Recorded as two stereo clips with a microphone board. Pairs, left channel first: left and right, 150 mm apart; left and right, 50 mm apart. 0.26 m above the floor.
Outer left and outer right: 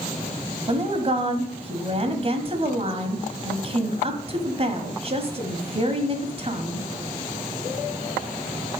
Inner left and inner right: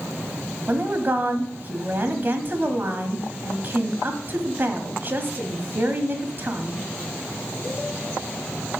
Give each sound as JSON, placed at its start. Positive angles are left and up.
{"t": 0.7, "sound": "a woman speaking", "side_deg": -40, "distance_m": 1.2}